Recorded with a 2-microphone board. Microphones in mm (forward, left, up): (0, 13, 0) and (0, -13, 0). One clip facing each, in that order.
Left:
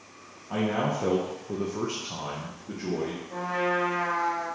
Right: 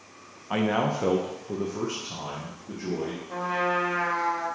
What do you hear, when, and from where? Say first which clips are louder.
0.5 s a man speaking: right 2 dB; 65° right (ahead or behind), 0.6 m; by 3.2 s 40° left (ahead or behind), 1.3 m
3.3 s a trumpet: right 1 dB; 45° right (ahead or behind), 1.4 m